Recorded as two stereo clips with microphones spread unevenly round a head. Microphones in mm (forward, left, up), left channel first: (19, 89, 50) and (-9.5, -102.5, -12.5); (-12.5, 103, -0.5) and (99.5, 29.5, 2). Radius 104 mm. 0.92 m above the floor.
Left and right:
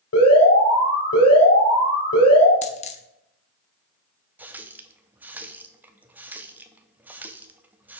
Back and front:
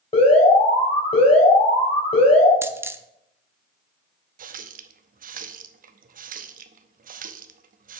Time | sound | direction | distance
0.1 | an alarm | 100° left | 3 m
2.6 | a dropped coin | 40° left | 0.8 m
4.4 | a running tap | 15° right | 0.7 m